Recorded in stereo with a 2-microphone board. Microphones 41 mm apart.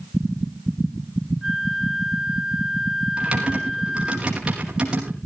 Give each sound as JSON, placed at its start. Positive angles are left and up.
{"t": 1.4, "sound": "a flute", "side_deg": -10, "distance_m": 2.5}
{"t": 3.2, "sound": "typing on a keyboard", "side_deg": -20, "distance_m": 4.5}